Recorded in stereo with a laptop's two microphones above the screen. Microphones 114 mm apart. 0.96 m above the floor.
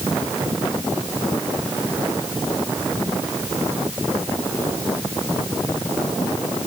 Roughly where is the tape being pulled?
I don't hear tape being pulled.